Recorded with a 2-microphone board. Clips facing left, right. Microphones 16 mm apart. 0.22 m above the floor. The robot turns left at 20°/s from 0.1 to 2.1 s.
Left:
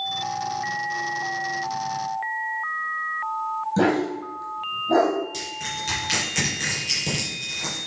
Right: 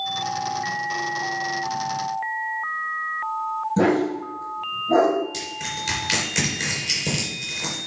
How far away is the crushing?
About 3.5 m.